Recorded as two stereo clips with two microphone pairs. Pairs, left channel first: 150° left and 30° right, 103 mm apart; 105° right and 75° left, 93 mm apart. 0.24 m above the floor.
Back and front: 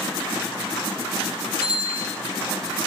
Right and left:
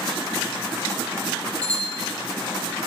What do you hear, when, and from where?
1.6 s a bicycle bell: 25° right, 6.5 m